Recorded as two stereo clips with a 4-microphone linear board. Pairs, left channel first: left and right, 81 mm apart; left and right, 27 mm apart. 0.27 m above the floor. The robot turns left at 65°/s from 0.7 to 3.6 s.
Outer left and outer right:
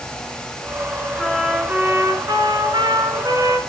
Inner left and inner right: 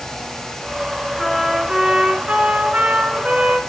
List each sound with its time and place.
1.2 s a trumpet: 5° left, 2.5 m; by 3.6 s 150° right, 2.5 m